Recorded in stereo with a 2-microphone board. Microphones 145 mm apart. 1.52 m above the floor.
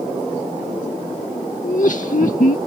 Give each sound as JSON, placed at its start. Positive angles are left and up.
{"t": 1.6, "sound": "laughter", "side_deg": 60}